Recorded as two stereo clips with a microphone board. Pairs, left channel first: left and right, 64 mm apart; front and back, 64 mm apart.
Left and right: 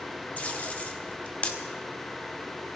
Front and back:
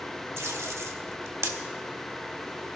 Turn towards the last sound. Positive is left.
turn(degrees=150)